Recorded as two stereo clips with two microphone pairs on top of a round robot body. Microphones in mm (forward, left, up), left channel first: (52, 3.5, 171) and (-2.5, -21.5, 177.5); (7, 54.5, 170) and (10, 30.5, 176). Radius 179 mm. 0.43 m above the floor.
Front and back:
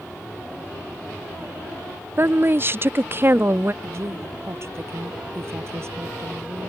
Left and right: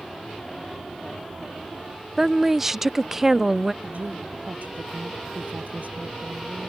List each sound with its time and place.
2.2 s a woman speaking: 175° right
3.8 s a woman speaking: 110° right